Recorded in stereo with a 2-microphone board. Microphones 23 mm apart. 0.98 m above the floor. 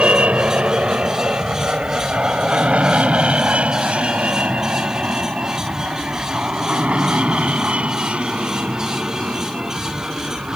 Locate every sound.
0.0 s an aircraft: 60° right (ahead or behind); by 10.6 s 55° right (ahead or behind)